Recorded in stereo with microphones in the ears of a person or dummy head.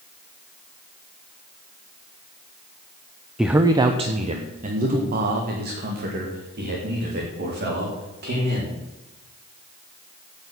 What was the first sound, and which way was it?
A man speaking, 5° right (ahead or behind).